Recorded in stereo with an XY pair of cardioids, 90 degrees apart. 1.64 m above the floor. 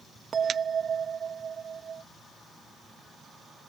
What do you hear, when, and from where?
0.3 s a bell: 50° right